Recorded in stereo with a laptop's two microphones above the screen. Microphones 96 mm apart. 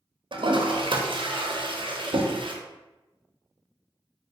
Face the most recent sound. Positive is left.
turn(degrees=-60)  # may be behind; listen again after turning